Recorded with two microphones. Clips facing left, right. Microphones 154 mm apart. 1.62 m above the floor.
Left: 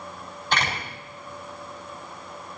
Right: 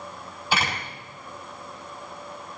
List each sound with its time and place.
0.5 s a door slam: 5° right (ahead or behind), 5 m